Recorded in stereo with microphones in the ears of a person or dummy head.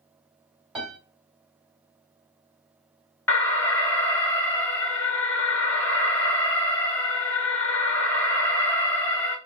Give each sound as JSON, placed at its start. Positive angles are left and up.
{"t": 0.8, "sound": "a piano", "side_deg": -10, "distance_m": 2.0}
{"t": 3.3, "sound": "an alarm", "side_deg": 5, "distance_m": 1.2}